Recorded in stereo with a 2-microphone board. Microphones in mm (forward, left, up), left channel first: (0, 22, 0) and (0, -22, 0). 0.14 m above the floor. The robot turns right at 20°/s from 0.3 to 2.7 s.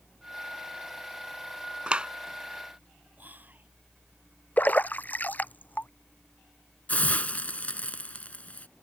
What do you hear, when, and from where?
1.9 s a clap: 25° right (ahead or behind)
3.2 s whispering: 45° right (ahead or behind)
4.6 s a splash: 45° left (ahead or behind)
6.9 s a hiss: 35° left (ahead or behind)